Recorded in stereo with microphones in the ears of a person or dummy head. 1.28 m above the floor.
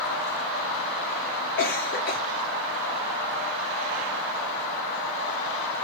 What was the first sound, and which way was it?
A cough, 45° left (ahead or behind).